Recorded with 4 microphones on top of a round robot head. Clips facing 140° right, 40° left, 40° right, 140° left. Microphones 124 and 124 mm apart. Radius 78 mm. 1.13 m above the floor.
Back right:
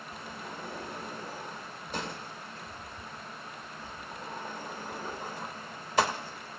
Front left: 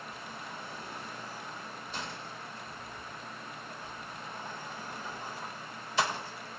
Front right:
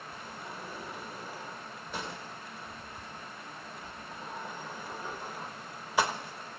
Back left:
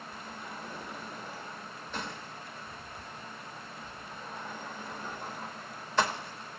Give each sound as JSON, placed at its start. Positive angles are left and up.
{"t": 0.1, "sound": "a sliding door", "azimuth_deg": -115, "distance_m": 0.9}